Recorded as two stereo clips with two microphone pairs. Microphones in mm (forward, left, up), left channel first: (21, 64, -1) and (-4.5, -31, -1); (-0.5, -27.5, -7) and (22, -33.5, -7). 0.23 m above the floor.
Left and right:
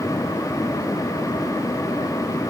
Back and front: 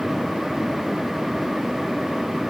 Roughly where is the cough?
No cough in this recording.